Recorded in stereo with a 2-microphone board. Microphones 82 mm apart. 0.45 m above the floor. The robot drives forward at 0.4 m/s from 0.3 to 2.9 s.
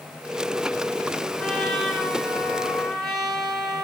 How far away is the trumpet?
About 1.5 m.